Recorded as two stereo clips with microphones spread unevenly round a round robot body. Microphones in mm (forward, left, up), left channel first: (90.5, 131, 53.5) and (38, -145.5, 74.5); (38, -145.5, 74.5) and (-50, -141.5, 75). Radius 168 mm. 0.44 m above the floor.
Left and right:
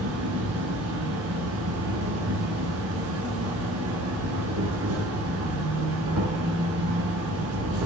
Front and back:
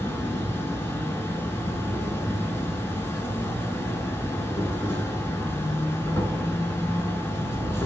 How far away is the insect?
About 0.9 m.